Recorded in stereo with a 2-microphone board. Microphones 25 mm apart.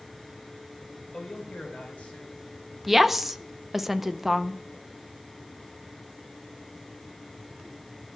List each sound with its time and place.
1.1 s a man speaking: 55° left (ahead or behind), 3.5 m; by 2.5 s 85° left, 4.5 m
2.9 s a woman speaking: 10° right (ahead or behind), 0.6 m